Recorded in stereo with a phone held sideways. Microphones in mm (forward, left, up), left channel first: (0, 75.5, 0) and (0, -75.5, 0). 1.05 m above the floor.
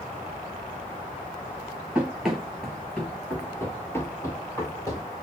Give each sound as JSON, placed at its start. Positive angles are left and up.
{"t": 1.9, "sound": "running footsteps", "side_deg": -5, "distance_m": 1.1}